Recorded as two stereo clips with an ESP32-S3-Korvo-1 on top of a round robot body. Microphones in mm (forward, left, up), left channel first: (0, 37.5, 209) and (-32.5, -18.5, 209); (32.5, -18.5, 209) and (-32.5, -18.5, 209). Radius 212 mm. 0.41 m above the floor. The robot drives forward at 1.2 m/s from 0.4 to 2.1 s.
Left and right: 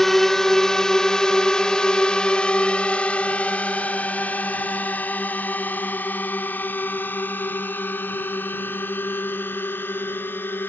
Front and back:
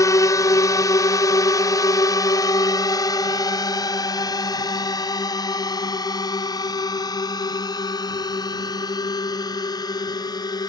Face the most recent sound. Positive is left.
turn(degrees=0)